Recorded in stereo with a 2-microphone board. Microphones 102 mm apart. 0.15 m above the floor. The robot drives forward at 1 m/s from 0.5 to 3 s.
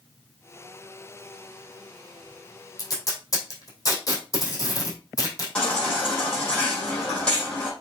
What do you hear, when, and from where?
2.8 s tape being pulled: 40° left (ahead or behind), 3 m; by 5.5 s 35° left (ahead or behind), 3 m
5.5 s a baby crying: 10° left (ahead or behind), 5 m